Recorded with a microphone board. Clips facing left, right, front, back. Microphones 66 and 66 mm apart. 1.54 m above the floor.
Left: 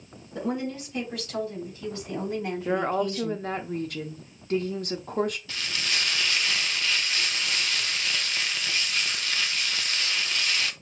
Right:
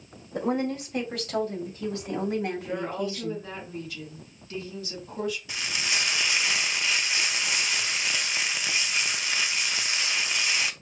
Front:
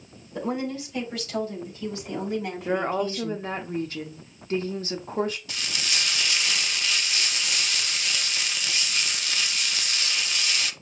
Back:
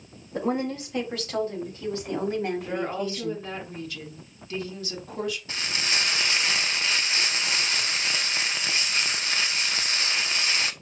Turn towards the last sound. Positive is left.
turn(degrees=-145)